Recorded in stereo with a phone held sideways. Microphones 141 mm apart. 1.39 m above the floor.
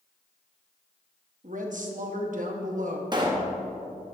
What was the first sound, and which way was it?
A woman speaking, 65° right (ahead or behind).